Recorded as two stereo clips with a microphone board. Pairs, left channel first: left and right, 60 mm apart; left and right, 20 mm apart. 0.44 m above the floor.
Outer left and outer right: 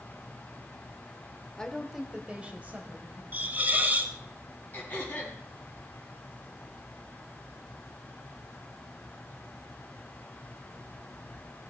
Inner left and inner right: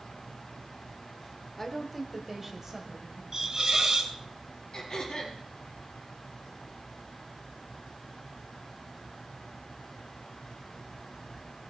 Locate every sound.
1.6 s a woman speaking: 15° left (ahead or behind), 1.2 m; by 3.2 s 35° right (ahead or behind), 2.5 m
3.3 s a hiss: 25° right (ahead or behind), 1.4 m
4.7 s throat clearing: 30° left (ahead or behind), 4 m